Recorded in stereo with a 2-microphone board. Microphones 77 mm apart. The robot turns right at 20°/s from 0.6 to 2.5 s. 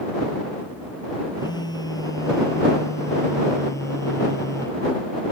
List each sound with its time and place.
1.4 s a phone buzzing: 65° left (ahead or behind); by 4.8 s 40° left (ahead or behind)